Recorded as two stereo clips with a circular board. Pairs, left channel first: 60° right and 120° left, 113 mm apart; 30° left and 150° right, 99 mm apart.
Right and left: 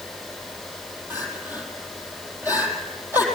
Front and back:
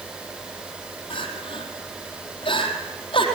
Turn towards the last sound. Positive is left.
turn(degrees=45)